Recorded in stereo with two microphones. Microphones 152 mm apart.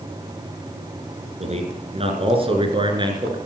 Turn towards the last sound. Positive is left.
turn(degrees=-30)  # may be behind; listen again after turning